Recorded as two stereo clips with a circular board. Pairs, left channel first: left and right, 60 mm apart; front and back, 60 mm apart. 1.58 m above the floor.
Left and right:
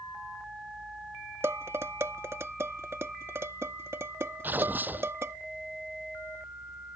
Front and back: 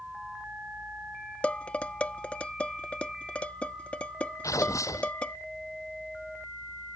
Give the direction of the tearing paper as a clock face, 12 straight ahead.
1 o'clock.